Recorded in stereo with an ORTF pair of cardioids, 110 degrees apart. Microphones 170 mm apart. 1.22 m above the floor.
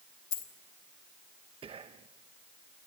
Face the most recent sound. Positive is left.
turn(degrees=-30)